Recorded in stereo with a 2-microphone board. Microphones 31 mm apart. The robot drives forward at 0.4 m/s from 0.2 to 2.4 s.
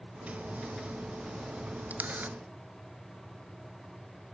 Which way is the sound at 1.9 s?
70° right (ahead or behind).